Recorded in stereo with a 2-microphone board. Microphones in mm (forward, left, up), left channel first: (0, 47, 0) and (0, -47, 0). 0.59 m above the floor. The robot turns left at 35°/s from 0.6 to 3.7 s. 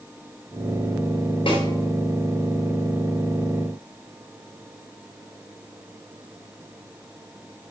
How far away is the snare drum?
About 2.5 m.